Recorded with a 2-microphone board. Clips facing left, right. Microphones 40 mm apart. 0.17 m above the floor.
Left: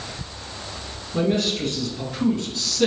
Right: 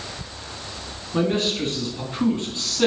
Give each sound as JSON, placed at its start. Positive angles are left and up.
{"t": 1.1, "sound": "a man speaking", "side_deg": -35, "distance_m": 2.0}